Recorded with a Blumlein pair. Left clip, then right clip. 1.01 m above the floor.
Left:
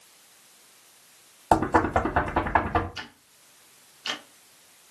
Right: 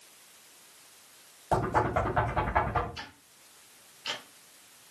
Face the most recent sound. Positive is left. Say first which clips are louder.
# left 4 dB
turn(degrees=70)